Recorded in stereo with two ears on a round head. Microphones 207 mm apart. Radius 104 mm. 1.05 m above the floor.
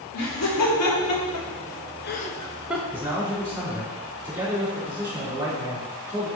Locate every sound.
0.1 s laughter: 80° left, 2.5 m; by 2.8 s 10° right (ahead or behind), 0.9 m
2.9 s a man speaking: 10° right (ahead or behind), 3.5 m